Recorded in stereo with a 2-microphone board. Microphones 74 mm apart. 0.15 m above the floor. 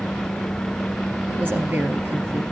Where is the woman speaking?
25° right (ahead or behind), 3 m.